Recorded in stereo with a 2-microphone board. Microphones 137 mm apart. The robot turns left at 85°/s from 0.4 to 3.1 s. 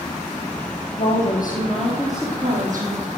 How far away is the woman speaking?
About 5 m.